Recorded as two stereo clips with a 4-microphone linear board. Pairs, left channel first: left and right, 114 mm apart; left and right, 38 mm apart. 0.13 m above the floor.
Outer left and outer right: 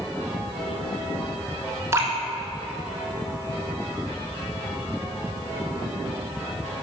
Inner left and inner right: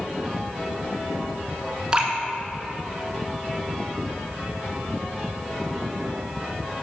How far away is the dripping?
About 1.7 m.